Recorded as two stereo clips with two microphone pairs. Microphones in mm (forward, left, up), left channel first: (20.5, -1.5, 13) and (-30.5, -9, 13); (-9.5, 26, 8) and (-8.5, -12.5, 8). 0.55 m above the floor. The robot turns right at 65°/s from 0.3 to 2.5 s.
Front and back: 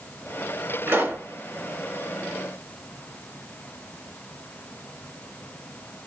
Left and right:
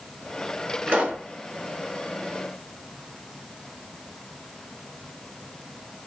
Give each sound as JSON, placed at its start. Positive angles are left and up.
{"t": 0.9, "sound": "a pop", "azimuth_deg": -140, "distance_m": 2.0}